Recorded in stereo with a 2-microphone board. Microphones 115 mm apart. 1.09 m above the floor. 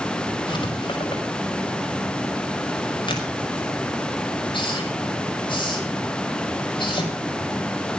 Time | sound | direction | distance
0.5 | writing | 45° left (ahead or behind) | 5.5 m